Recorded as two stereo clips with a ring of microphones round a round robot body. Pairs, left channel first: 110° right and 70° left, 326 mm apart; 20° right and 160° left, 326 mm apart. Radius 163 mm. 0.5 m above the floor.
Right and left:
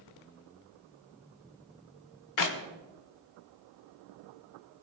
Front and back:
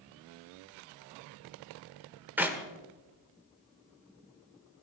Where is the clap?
120° right, 1.5 m.